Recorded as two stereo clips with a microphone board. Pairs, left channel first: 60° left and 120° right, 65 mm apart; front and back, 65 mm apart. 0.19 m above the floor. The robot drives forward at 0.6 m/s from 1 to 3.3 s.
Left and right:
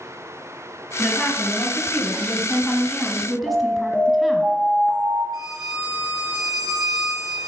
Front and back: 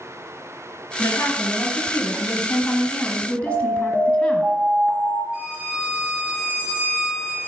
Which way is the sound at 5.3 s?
115° right.